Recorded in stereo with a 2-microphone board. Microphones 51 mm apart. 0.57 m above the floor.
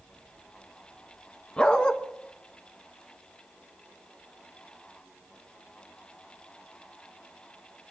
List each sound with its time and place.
1.6 s a dog barking: 20° left (ahead or behind), 1.2 m